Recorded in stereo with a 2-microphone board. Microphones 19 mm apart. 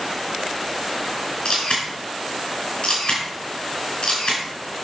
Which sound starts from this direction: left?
A camera shutter, at 1.4 s.